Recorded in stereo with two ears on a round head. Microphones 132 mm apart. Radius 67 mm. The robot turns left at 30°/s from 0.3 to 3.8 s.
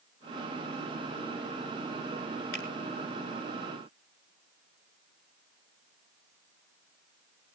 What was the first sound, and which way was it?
A finger snap, 85° left.